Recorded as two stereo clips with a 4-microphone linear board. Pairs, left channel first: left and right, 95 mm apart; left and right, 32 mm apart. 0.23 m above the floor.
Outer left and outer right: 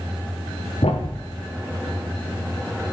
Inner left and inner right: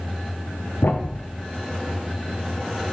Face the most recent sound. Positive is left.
turn(degrees=75)  # may be behind; listen again after turning